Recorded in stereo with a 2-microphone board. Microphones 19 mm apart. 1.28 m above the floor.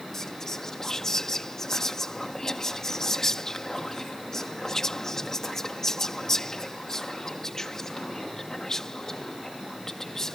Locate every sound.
0.1 s whispering: 25° left (ahead or behind)